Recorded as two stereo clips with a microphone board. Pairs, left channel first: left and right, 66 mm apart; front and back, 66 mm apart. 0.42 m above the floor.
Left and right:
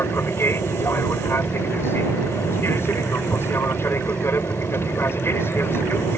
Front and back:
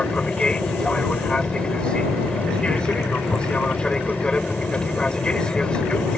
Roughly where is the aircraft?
Left.